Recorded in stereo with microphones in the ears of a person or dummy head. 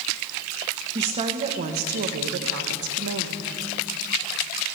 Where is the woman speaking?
20° right (ahead or behind), 1.3 m; by 3.5 s 75° right (ahead or behind), 1.4 m.